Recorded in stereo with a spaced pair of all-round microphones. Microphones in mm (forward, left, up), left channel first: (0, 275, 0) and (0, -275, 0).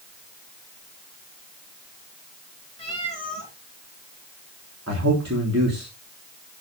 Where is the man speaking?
25° right (ahead or behind), 3.5 m.